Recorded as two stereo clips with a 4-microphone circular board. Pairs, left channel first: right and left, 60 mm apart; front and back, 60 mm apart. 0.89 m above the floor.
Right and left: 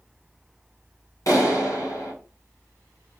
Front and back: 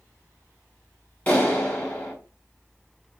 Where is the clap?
65° right, 2 m.